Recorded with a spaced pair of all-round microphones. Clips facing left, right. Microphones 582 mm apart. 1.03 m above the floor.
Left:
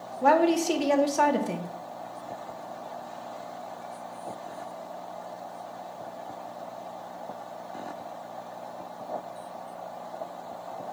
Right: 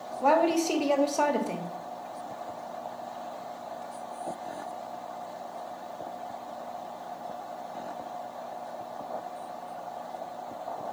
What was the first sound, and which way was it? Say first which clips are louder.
A woman speaking: left 2 dB; 45° left (ahead or behind).